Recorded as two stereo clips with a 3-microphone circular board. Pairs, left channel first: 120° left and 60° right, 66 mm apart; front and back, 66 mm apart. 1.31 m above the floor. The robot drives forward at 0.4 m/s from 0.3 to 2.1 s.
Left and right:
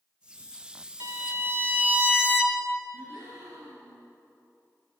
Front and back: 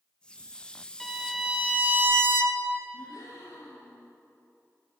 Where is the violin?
90° right, 0.6 m; by 2.8 s 130° right, 0.8 m.